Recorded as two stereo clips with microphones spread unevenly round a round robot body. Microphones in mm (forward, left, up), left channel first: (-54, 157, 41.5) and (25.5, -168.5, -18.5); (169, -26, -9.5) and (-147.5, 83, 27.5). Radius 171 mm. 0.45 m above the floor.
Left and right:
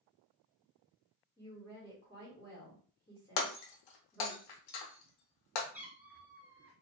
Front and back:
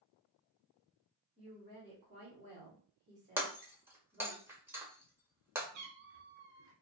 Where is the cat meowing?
165° right, 0.6 m.